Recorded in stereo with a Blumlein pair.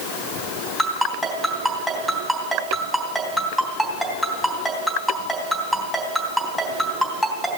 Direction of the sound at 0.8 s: Straight ahead.